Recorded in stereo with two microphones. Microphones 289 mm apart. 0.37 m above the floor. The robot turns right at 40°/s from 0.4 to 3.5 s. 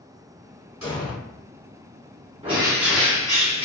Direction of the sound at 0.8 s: 60° right (ahead or behind).